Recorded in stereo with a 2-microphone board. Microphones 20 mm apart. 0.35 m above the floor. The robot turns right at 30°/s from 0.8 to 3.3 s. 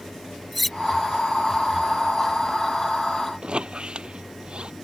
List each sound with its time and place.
0.5 s cutlery clinking: 5° left (ahead or behind)
3.4 s a squeak: 55° right (ahead or behind)